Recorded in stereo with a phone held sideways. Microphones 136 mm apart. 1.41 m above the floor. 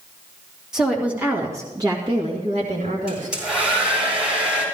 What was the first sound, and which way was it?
A woman speaking, 5° right (ahead or behind).